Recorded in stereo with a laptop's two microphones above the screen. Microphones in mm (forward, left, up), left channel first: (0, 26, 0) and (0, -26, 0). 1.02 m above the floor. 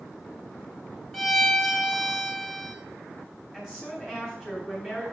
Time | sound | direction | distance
1.1 | a violin | centre (ahead or behind) | 0.7 m
3.5 | a woman speaking | 15° right (ahead or behind) | 2.5 m